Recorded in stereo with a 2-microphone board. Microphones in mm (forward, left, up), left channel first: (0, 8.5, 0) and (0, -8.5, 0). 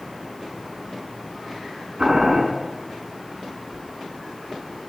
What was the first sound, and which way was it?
Boiling, 60° right (ahead or behind).